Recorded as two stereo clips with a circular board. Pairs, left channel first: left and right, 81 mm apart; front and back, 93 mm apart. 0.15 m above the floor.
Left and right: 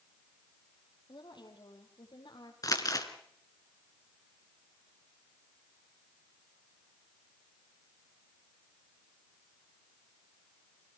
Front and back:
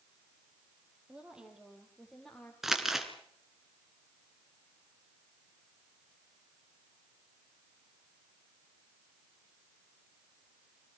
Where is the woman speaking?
105° left, 4.5 m; by 2.5 s 80° left, 4.5 m.